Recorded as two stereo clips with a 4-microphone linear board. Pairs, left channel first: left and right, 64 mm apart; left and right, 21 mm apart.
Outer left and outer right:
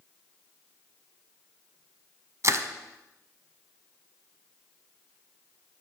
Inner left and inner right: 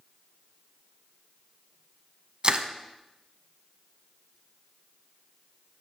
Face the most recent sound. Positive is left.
turn(degrees=-50)  # may be behind; listen again after turning